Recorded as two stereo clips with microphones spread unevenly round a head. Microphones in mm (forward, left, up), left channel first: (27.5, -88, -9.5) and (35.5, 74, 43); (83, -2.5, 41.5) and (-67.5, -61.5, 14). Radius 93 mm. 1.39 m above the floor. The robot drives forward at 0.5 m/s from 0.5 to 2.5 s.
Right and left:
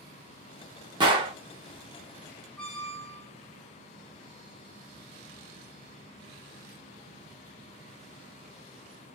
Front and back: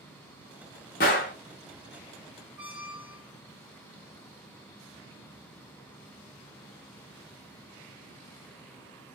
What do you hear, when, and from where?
1.0 s a gunshot: 45° left, 1.2 m; by 1.3 s 50° left, 1.1 m
2.6 s a squeak: 165° left, 2.5 m